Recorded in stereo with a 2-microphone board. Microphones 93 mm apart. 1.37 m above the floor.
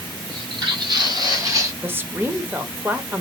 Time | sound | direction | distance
0.3 | footsteps | 55° right (ahead or behind) | 2 m
1.8 | a woman speaking | 25° right (ahead or behind) | 0.8 m